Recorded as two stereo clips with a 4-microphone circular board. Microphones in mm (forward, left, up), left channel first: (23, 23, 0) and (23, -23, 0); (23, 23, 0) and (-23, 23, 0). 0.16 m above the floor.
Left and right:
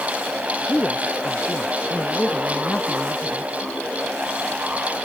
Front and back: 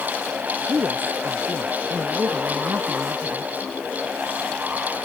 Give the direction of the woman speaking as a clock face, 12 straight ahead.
7 o'clock.